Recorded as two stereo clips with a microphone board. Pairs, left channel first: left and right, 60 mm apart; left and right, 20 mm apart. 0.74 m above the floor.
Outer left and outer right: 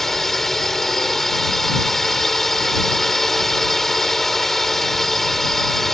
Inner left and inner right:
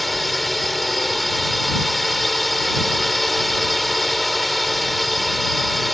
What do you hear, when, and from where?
0.0 s a drone: 5° left (ahead or behind)